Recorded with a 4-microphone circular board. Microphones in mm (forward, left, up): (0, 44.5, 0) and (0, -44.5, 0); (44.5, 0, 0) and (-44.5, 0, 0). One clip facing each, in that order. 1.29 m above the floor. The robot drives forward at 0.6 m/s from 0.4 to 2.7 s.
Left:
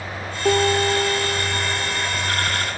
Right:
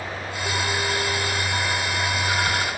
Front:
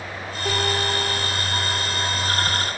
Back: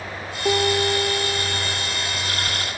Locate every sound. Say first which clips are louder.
0.5 s a piano: left 9 dB, back 4 dB; 115° left, 4 m; by 2.1 s 125° left, 4.5 m